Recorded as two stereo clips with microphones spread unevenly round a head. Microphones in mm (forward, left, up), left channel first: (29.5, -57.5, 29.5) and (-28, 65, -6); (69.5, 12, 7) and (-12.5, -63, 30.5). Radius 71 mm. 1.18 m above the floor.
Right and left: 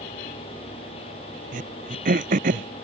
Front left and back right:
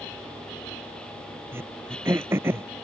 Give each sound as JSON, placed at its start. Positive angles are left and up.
{"t": 1.5, "sound": "throat clearing", "azimuth_deg": 150}